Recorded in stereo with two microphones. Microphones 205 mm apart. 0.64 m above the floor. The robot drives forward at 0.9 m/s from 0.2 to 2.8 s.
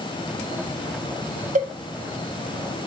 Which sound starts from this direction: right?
A cowbell, at 1.6 s.